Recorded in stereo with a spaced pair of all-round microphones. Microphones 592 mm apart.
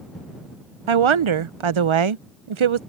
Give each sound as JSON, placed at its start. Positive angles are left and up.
{"t": 0.9, "sound": "a woman speaking", "side_deg": -55}